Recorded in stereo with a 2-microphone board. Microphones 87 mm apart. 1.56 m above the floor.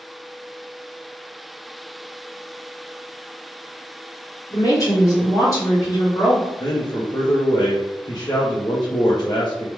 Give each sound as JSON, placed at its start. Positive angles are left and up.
{"t": 4.5, "sound": "a woman speaking", "side_deg": 40, "distance_m": 1.8}
{"t": 6.6, "sound": "a man speaking", "side_deg": 50, "distance_m": 0.6}